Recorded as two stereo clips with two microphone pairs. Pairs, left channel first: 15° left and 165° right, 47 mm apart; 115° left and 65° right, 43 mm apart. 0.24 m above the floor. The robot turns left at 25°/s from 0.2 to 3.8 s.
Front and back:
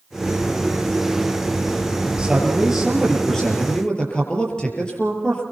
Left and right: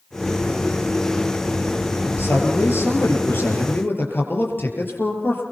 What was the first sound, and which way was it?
A man speaking, 125° left.